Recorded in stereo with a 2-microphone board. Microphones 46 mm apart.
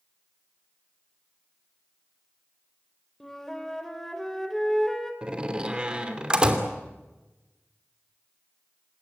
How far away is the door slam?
About 2.5 m.